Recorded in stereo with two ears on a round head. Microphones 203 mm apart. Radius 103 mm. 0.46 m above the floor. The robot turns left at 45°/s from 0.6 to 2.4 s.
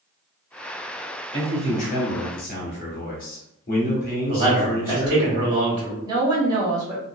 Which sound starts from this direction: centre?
A woman speaking, at 6.0 s.